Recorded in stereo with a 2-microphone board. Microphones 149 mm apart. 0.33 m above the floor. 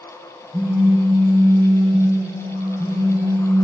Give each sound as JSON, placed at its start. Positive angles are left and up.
{"t": 0.5, "sound": "a phone buzzing", "side_deg": -30, "distance_m": 1.7}